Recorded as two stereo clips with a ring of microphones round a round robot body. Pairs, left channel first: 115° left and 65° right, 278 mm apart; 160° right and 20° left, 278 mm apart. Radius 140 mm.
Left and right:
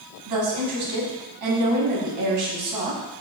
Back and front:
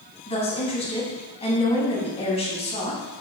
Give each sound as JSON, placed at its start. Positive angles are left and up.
{"t": 0.3, "sound": "a woman speaking", "azimuth_deg": -90, "distance_m": 2.5}